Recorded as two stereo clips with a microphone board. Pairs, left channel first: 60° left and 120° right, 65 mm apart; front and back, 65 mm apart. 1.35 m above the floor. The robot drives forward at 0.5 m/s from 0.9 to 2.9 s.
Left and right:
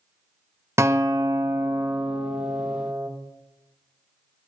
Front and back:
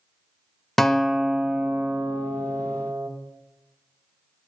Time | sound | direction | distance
0.8 | a guitar | 85° right | 0.6 m